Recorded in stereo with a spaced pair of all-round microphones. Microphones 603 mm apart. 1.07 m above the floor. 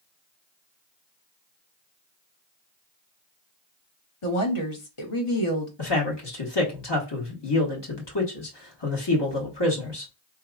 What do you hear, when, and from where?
4.2 s a woman speaking: 60° left (ahead or behind), 1.2 m
5.8 s a man speaking: 45° left (ahead or behind), 1.3 m